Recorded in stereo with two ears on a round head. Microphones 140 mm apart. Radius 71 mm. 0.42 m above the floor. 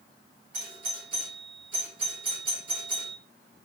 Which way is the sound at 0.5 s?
55° right (ahead or behind).